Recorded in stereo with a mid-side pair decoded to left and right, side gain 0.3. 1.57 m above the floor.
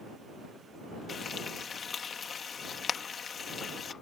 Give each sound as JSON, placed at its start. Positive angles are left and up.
{"t": 1.1, "sound": "frying", "azimuth_deg": 70}